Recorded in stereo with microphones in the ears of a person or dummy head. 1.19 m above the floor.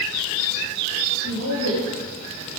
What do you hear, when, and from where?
1.2 s a woman speaking: 70° left (ahead or behind), 6 m